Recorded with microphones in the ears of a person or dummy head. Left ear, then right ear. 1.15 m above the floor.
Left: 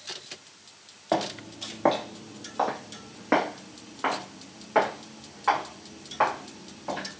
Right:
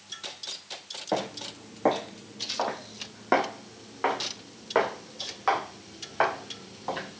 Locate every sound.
1.1 s footsteps: 20° left (ahead or behind), 1.4 m; by 7.2 s 40° right (ahead or behind), 3.5 m